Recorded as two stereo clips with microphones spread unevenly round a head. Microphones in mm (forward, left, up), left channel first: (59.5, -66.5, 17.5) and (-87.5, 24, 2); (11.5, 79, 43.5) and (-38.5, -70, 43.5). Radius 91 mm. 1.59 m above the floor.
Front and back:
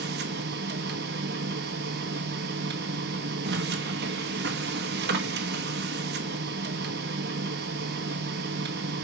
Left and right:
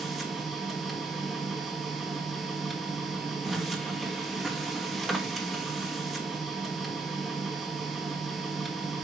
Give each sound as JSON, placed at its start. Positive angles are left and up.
{"t": 0.0, "sound": "a machine running", "azimuth_deg": 160, "distance_m": 1.2}